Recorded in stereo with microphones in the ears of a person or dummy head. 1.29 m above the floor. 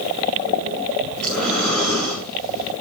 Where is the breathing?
5° left (ahead or behind), 6.5 m.